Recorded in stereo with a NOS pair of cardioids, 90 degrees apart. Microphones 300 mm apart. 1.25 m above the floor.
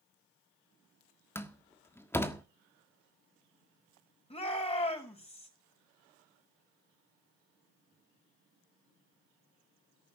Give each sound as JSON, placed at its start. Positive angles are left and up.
{"t": 1.4, "sound": "a door slam", "azimuth_deg": 10, "distance_m": 1.5}
{"t": 4.3, "sound": "a shout", "azimuth_deg": 20, "distance_m": 6.5}